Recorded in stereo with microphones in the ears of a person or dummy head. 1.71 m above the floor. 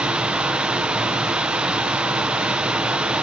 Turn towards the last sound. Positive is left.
turn(degrees=-5)  # may be behind; listen again after turning